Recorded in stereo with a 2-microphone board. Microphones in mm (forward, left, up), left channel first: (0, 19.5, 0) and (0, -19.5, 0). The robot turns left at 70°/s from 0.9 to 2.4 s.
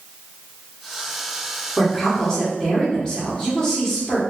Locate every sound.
1.8 s a woman speaking: 5° left (ahead or behind), 1.3 m; by 4.2 s 20° left (ahead or behind), 1.3 m